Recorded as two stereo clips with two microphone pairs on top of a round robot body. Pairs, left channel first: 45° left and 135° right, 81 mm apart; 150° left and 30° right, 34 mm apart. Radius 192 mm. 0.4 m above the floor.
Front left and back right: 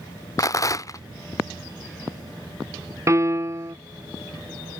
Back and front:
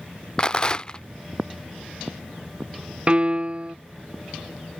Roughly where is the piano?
Right.